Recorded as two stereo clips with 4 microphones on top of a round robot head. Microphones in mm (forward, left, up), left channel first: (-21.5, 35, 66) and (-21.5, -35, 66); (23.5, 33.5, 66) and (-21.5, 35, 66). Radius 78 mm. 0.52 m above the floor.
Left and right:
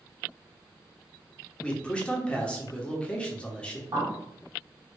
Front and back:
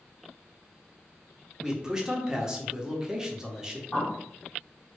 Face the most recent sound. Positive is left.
turn(degrees=-70)